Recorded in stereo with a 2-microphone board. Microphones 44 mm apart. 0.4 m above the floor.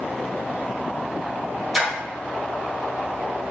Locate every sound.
1.7 s a splash: 5° right (ahead or behind), 1.3 m